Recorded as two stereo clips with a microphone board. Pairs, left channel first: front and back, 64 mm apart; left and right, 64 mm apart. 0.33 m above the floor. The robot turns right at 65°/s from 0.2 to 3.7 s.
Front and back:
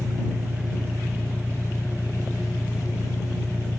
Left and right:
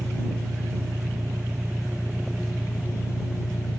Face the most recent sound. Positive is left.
turn(degrees=85)